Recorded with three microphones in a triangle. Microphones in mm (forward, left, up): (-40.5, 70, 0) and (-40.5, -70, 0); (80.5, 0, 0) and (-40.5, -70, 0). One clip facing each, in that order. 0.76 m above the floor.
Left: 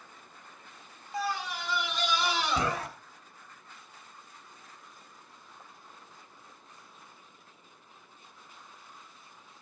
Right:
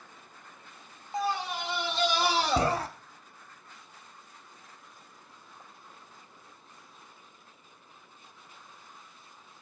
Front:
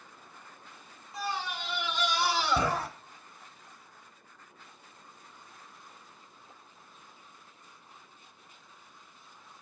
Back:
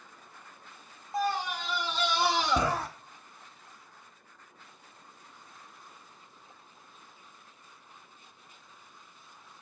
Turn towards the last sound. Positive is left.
turn(degrees=-65)